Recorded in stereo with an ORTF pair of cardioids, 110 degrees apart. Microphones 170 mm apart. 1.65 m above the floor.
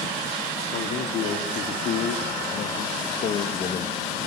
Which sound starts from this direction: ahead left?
A man speaking, at 0.7 s.